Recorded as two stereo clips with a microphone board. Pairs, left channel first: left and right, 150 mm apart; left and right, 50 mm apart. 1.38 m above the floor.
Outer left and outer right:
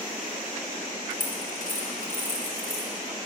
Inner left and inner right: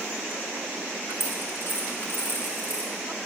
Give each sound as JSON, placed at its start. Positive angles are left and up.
{"t": 1.1, "sound": "a dropped coin", "side_deg": 65, "distance_m": 2.0}